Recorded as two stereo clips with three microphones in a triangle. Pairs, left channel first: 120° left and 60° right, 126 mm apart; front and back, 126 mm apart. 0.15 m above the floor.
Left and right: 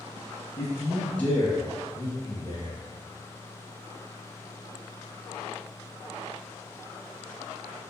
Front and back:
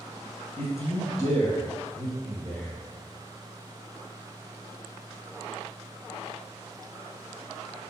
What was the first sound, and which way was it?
A man speaking, 65° left.